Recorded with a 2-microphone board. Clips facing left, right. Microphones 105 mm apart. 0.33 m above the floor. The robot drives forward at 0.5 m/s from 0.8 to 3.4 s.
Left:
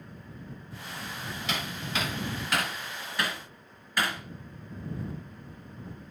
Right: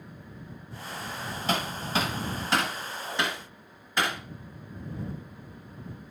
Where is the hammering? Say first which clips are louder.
Right 6 dB; 40° right (ahead or behind), 1.4 m; by 4.2 s 25° right (ahead or behind), 2 m.